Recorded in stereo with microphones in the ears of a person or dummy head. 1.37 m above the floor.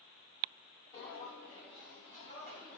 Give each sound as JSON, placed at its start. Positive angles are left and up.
{"t": 0.9, "sound": "footsteps", "side_deg": 45, "distance_m": 2.0}